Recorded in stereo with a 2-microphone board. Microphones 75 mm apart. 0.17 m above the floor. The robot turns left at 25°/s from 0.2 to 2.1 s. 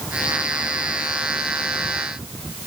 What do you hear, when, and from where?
Only background noise.